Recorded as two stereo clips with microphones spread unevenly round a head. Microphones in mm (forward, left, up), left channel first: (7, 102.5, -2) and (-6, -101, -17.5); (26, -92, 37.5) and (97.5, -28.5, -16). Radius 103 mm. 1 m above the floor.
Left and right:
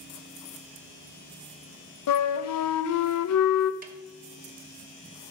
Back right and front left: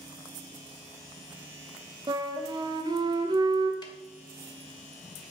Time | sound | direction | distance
2.1 | a flute | 75° left | 0.5 m
3.8 | a snare drum | 145° right | 0.8 m